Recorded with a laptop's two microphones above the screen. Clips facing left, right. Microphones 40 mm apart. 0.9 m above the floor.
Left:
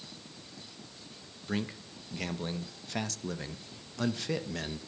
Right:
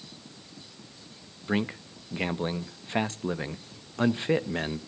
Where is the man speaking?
30° right (ahead or behind), 0.6 m.